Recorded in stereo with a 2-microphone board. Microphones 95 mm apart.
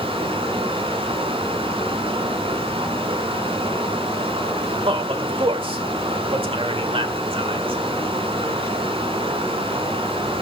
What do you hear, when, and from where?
0.0 s running water: 75° right (ahead or behind), 5.5 m
4.9 s a man speaking: 75° right (ahead or behind), 2 m